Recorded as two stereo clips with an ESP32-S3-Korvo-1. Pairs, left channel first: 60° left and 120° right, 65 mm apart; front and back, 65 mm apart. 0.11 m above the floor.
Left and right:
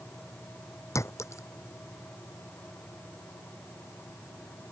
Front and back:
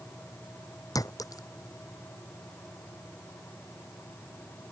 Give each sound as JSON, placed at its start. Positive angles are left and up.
{"t": 0.9, "sound": "a clink", "azimuth_deg": 20}